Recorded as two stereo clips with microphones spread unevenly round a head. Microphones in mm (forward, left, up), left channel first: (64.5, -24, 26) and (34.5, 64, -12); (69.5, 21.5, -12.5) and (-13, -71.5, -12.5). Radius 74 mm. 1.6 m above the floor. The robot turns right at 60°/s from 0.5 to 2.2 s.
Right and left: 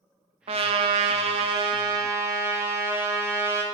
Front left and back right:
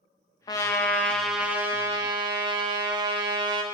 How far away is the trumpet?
About 0.9 m.